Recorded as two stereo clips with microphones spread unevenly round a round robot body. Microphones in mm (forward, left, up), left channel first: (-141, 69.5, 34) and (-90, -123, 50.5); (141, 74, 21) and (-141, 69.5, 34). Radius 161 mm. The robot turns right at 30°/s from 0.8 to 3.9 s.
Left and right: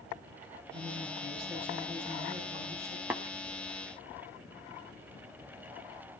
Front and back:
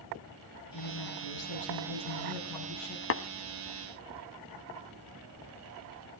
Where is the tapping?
10° left, 1.1 m.